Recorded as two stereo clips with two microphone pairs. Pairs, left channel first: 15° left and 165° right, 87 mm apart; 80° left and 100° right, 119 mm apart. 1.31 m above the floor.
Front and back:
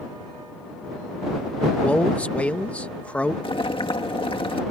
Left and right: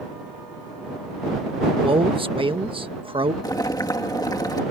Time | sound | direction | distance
1.8 | a man speaking | 60° right | ?
3.4 | boiling | 20° left | ?